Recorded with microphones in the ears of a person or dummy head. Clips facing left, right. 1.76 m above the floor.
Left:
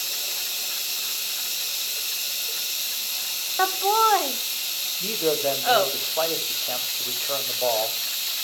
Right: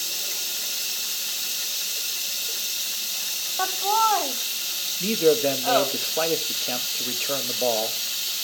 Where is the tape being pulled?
I don't hear tape being pulled.